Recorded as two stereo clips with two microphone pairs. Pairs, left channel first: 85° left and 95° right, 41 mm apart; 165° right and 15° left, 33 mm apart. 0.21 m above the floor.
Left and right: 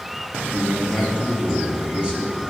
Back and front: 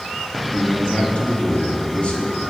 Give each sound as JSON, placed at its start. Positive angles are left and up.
{"t": 0.5, "sound": "a man speaking", "azimuth_deg": -150, "distance_m": 2.0}